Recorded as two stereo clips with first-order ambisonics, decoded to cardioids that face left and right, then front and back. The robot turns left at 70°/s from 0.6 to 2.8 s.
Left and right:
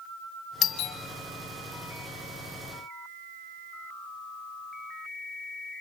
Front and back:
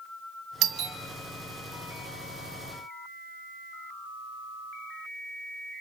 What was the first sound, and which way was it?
A doorbell, 140° left.